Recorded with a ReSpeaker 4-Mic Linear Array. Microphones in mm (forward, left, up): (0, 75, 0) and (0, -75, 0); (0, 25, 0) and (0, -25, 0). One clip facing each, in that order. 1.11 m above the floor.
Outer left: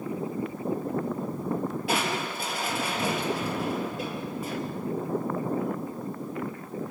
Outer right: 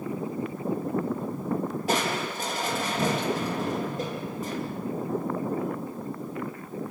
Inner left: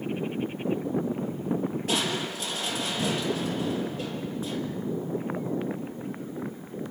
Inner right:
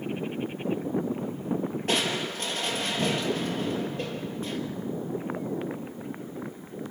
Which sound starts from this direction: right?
Crushing, at 1.9 s.